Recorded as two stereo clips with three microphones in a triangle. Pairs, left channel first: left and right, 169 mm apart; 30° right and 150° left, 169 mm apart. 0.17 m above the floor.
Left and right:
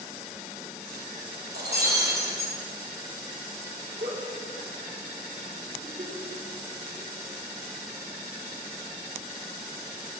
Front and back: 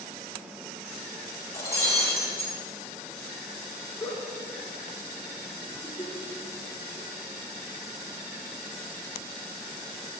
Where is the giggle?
100° right, 2.5 m.